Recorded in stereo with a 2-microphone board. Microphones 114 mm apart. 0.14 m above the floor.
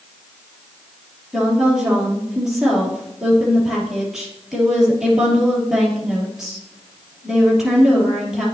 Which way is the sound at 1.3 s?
5° right (ahead or behind).